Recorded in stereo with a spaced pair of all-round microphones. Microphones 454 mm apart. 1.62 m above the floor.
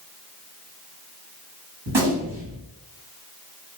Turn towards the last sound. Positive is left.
turn(degrees=-65)  # may be behind; listen again after turning